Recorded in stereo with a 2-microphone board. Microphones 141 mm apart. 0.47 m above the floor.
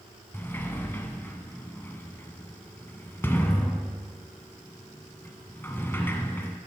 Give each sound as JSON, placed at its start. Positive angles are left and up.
{"t": 0.3, "sound": "a sliding door", "side_deg": 15, "distance_m": 0.8}